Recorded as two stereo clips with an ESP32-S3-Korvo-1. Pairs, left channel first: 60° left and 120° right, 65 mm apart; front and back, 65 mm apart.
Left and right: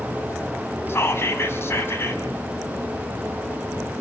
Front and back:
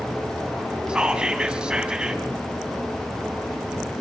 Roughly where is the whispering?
Left.